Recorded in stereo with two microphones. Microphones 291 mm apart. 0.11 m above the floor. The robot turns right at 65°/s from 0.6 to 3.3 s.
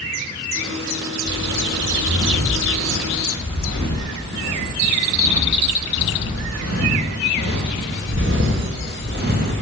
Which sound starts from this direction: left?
Footsteps, at 1.2 s.